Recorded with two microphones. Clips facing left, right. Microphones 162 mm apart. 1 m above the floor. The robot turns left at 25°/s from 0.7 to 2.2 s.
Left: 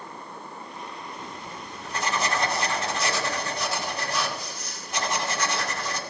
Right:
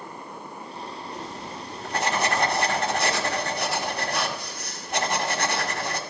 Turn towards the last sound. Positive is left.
turn(degrees=-60)  # may be behind; listen again after turning